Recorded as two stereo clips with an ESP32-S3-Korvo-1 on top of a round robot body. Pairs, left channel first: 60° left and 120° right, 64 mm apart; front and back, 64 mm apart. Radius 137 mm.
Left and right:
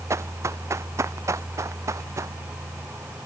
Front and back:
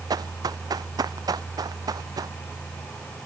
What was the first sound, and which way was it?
Running footsteps, 165° right.